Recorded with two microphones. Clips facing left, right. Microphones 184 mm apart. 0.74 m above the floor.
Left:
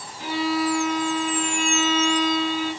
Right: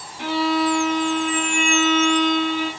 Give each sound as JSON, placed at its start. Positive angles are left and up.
{"t": 0.2, "sound": "a violin", "side_deg": -75, "distance_m": 6.5}